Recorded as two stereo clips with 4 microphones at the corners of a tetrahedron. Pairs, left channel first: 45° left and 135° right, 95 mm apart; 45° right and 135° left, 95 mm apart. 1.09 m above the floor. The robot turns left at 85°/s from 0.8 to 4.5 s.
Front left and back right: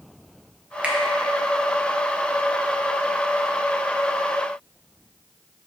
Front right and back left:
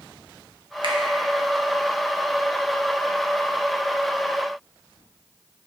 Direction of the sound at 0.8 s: 150° left.